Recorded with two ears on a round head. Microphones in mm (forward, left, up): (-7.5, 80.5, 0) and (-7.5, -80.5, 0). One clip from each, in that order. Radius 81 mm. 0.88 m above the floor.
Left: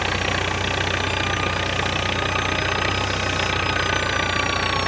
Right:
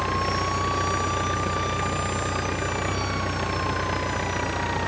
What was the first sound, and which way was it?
An engine running, 60° left (ahead or behind).